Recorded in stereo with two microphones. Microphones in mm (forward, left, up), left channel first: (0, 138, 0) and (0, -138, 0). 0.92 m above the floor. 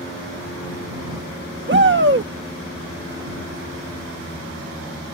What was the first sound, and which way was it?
A shout, 40° right (ahead or behind).